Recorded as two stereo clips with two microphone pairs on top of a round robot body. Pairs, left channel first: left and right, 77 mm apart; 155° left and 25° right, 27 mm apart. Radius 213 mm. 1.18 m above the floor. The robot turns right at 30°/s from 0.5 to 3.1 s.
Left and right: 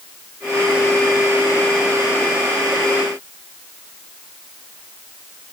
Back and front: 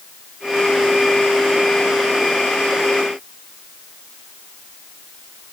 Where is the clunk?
I don't hear a clunk.